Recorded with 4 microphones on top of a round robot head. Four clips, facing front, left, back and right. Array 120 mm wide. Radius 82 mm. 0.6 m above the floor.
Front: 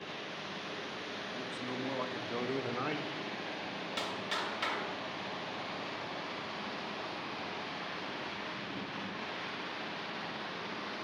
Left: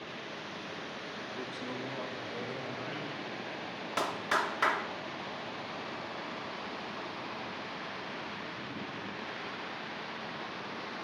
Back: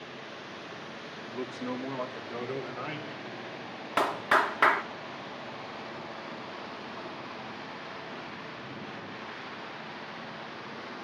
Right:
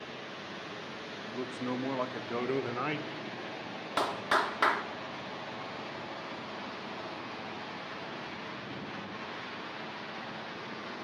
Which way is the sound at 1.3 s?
150° right.